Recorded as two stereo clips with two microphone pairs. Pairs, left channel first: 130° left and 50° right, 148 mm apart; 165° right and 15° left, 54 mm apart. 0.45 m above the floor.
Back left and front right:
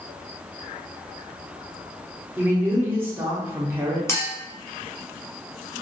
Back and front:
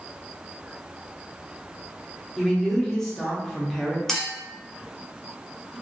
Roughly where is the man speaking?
Right.